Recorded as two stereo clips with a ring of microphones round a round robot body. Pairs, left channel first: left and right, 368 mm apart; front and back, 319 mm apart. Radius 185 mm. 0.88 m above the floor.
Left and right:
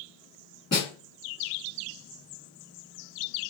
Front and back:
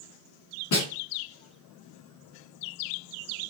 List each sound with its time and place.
0.7 s a snare drum: 10° left, 1.8 m